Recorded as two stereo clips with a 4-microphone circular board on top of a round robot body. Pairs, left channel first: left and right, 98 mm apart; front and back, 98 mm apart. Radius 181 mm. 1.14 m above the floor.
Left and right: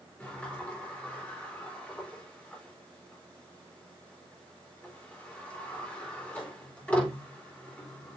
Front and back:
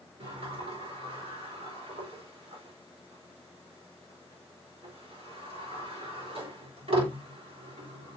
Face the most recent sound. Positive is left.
turn(degrees=165)